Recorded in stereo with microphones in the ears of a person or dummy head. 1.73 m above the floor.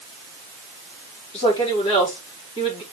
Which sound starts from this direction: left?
A woman speaking, at 1.3 s.